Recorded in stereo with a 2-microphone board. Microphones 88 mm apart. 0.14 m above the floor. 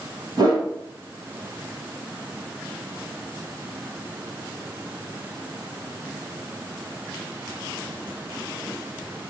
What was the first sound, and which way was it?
A whoosh, 45° right (ahead or behind).